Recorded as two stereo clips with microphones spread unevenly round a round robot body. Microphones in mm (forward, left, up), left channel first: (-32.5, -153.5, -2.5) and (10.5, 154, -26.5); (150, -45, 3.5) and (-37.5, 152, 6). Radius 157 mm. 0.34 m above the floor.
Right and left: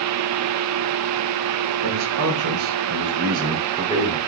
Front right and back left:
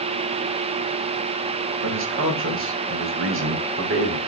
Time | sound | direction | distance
1.8 | a man speaking | 100° left | 2 m